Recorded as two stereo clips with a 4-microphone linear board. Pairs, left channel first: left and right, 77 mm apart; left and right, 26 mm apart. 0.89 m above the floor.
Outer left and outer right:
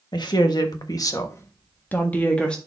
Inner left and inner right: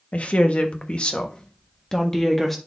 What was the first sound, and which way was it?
A woman speaking, 65° left (ahead or behind).